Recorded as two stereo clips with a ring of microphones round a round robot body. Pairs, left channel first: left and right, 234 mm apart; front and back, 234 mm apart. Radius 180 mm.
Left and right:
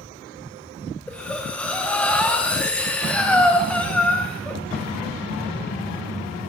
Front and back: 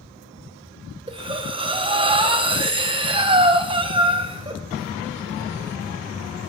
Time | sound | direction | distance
1.1 | breathing | 165° left | 0.7 m